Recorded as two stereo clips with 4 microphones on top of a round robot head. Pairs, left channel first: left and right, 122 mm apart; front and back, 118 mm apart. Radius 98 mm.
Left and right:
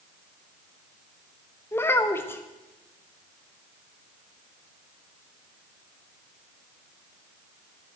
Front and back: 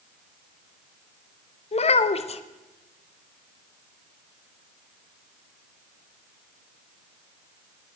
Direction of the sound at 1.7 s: 20° left.